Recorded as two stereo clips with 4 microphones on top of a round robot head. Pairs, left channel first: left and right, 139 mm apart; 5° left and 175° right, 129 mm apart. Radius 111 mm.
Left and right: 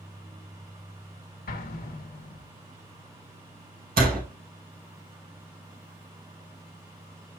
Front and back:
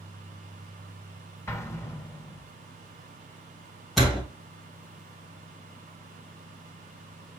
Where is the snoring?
I don't hear snoring.